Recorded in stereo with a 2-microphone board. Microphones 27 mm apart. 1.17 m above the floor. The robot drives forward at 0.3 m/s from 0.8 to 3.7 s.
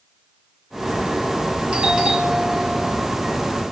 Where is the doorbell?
35° right (ahead or behind), 0.9 m; by 3.0 s 30° right (ahead or behind), 1.1 m.